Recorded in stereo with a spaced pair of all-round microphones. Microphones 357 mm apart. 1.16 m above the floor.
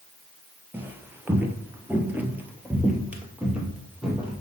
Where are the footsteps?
5° right (ahead or behind), 1.2 m; by 4.4 s centre (ahead or behind), 2.0 m.